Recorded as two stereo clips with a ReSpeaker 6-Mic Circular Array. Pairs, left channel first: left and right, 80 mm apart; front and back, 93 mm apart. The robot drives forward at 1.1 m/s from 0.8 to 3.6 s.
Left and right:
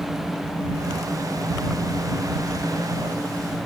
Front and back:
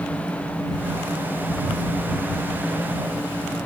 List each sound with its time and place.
Only background noise.